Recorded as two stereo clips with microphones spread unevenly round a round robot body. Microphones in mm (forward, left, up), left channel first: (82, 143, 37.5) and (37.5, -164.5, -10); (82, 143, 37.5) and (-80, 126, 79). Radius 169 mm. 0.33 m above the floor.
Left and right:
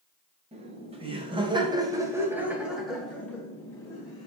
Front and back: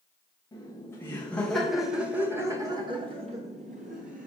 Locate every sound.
0.5 s laughter: 45° right, 1.5 m; by 4.3 s 165° left, 1.3 m